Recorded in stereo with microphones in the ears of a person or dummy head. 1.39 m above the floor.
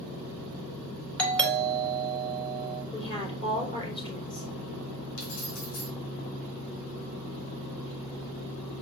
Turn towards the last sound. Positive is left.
turn(degrees=70)  # may be behind; listen again after turning